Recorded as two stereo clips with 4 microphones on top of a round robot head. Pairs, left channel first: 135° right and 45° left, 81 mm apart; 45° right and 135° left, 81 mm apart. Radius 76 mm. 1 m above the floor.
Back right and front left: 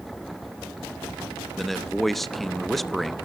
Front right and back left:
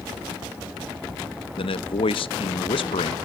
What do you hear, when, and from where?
1.6 s a man speaking: 50° right, 1.0 m